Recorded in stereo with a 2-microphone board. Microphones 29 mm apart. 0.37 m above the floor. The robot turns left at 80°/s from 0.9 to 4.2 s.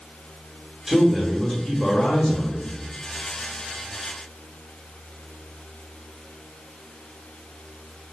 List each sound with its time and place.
0.9 s a man speaking: 160° right, 1.4 m; by 2.7 s 55° left, 1.4 m